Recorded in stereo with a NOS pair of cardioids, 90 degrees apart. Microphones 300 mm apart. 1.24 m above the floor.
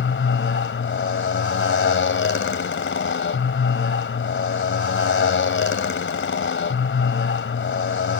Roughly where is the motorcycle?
Ahead left.